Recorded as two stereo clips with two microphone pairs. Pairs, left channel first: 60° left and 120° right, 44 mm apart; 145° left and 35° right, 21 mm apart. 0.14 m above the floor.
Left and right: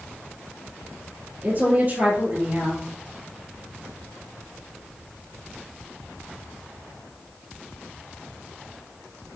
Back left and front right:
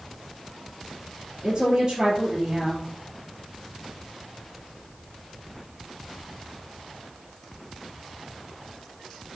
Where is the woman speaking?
85° right, 2.5 m.